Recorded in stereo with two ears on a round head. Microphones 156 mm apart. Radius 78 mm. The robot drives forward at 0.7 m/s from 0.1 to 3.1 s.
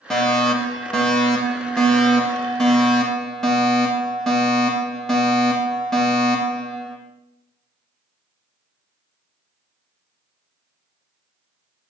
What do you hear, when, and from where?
0.1 s a fire alarm: 5° left (ahead or behind), 3.5 m